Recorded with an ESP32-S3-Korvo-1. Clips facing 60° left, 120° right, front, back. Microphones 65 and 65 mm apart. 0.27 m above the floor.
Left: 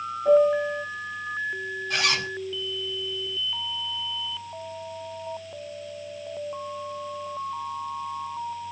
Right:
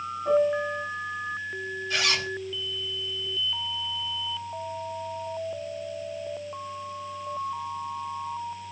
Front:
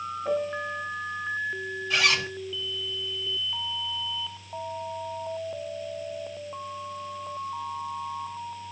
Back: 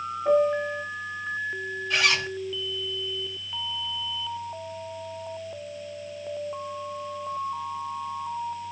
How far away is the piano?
About 1.5 m.